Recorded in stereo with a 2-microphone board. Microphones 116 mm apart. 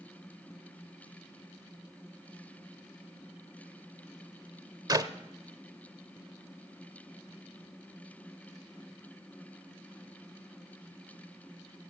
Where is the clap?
35° right (ahead or behind), 0.7 m.